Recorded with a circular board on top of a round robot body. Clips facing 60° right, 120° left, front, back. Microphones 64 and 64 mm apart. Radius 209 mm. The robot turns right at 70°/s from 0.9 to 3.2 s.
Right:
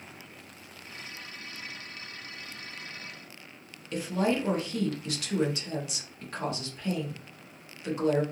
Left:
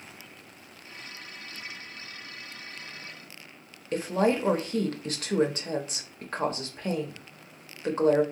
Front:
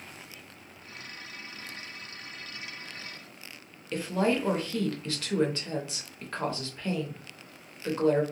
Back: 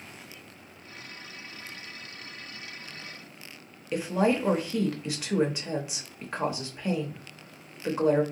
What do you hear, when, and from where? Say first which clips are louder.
3.9 s a woman speaking: left 3 dB, back 2 dB; 110° left, 0.9 m